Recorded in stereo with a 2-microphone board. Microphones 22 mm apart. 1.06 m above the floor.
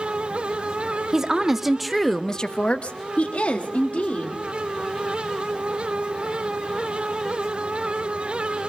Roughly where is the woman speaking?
Right.